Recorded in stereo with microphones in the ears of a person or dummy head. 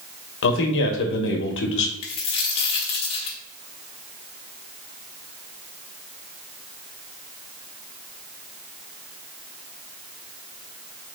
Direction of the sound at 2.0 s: 35° left (ahead or behind).